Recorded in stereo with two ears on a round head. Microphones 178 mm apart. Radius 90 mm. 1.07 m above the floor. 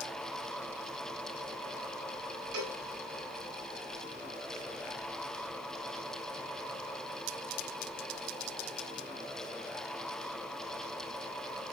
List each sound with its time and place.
2.5 s a cowbell: 55° right (ahead or behind), 6 m